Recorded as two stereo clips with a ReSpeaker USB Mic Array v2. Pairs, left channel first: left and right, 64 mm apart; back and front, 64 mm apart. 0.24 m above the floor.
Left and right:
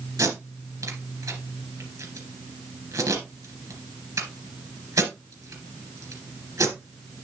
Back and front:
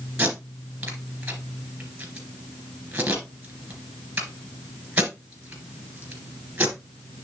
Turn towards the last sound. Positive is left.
turn(degrees=-70)